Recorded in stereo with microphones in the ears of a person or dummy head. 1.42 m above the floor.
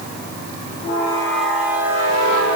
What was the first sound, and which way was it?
Only background noise.